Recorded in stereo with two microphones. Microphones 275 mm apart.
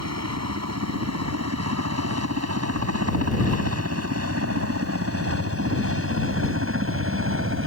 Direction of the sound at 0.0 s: 60° right (ahead or behind).